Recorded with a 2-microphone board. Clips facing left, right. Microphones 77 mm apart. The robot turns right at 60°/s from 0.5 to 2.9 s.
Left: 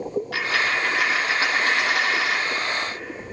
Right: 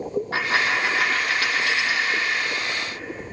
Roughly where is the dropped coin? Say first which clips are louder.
Right 2 dB; ahead right.